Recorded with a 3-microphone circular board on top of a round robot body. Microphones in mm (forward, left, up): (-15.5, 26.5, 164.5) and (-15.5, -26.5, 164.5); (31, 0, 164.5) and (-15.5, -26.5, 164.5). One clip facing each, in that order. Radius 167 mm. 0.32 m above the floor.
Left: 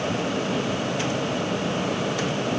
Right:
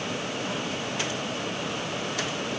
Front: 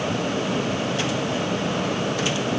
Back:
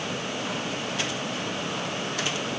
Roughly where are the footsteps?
I don't hear footsteps.